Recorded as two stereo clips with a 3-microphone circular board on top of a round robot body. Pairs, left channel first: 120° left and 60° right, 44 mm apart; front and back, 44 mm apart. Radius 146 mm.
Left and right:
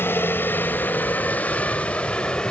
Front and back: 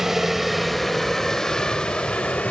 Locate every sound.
0.0 s a helicopter: 95° left; by 2.5 s 50° left